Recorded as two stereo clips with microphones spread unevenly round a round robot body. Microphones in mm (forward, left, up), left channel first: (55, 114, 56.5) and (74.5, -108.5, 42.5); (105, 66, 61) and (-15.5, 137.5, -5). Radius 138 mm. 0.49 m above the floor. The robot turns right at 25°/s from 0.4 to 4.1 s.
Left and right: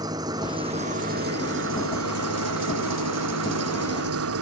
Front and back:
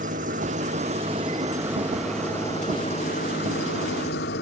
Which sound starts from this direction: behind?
An engine running, at 0.0 s.